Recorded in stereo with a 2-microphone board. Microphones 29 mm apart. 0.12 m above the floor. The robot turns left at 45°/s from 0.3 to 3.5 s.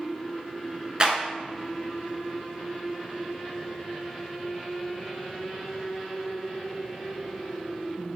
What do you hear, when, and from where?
1.0 s a clap: 30° right (ahead or behind), 0.9 m